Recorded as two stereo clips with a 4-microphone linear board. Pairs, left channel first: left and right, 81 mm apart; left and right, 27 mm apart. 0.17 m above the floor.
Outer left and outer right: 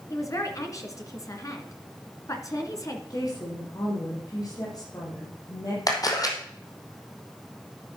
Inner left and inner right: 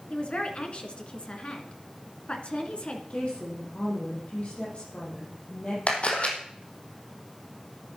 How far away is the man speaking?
About 2 m.